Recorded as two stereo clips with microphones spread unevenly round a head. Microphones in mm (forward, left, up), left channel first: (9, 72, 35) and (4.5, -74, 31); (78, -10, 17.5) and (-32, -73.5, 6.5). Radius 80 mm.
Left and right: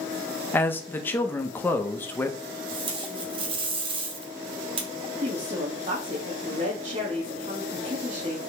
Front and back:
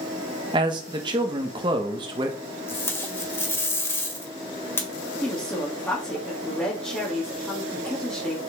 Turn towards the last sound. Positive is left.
turn(degrees=-45)